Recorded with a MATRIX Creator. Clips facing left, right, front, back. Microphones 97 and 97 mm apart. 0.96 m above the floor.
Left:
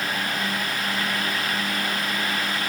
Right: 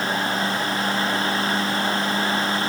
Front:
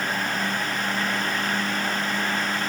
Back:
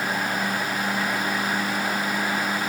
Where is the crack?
I don't hear a crack.